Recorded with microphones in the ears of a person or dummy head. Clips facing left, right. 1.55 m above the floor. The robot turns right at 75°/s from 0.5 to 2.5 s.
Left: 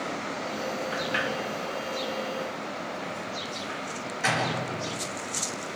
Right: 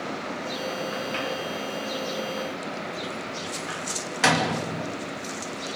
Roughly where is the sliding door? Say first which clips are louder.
Even; left.